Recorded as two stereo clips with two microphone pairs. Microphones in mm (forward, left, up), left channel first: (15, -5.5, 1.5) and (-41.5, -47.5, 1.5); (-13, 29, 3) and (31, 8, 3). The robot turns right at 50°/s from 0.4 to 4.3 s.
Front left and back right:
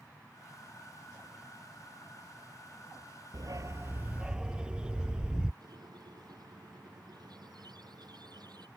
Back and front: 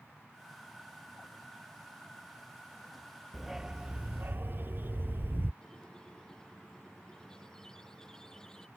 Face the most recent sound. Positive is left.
turn(degrees=-125)